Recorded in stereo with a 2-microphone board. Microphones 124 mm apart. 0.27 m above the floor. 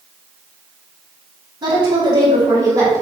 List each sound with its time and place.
1.6 s a woman speaking: 40° right (ahead or behind), 1.9 m; by 3.0 s 25° right (ahead or behind), 2 m